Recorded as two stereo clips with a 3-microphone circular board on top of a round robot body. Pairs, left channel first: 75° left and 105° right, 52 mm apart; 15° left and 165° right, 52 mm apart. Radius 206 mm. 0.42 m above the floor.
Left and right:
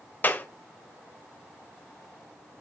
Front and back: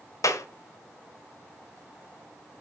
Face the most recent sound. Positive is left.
turn(degrees=20)